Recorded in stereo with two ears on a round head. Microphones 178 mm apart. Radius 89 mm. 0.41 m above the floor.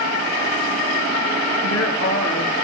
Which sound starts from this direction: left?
A woman speaking, at 1.6 s.